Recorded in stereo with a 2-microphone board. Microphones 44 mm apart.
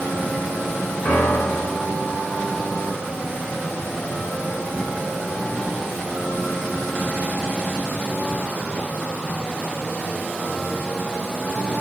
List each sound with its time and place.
1.1 s a piano: 30° left (ahead or behind), 1.9 m